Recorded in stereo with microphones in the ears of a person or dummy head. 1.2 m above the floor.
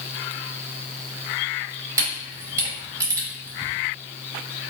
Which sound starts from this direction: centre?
A camera shutter, at 2.0 s.